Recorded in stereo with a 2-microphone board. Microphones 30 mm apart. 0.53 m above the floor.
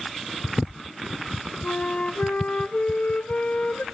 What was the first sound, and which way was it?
A flute, 45° left (ahead or behind).